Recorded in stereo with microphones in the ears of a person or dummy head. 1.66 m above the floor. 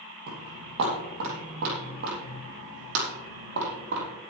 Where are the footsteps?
55° right (ahead or behind), 3 m; by 4.1 s 60° right (ahead or behind), 5 m.